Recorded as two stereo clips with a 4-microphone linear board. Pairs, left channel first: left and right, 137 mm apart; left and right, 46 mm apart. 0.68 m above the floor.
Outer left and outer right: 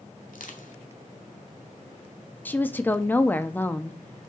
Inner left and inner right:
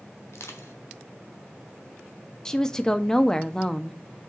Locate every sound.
0.3 s crushing: 70° left (ahead or behind), 1.3 m
2.5 s a woman speaking: 15° left (ahead or behind), 0.6 m